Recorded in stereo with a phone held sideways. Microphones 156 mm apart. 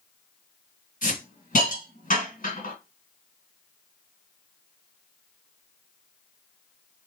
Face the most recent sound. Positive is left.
turn(degrees=65)  # may be behind; listen again after turning